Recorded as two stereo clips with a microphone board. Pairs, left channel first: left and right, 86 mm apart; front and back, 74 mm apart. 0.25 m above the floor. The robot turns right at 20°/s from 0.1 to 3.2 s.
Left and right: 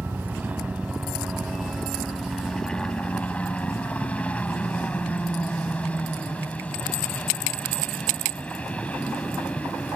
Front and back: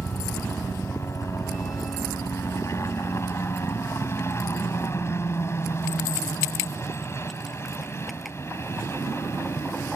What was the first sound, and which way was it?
A helicopter, 40° right.